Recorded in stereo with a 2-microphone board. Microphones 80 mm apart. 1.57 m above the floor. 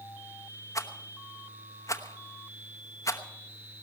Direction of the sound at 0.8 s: 40° left (ahead or behind).